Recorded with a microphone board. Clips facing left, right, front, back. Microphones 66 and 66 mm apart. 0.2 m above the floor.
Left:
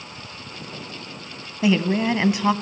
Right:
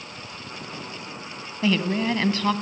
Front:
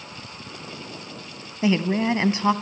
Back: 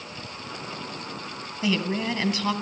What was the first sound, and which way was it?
A woman speaking, 30° left.